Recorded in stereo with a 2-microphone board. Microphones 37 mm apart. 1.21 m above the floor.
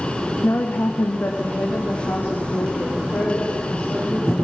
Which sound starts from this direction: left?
A woman speaking, at 0.4 s.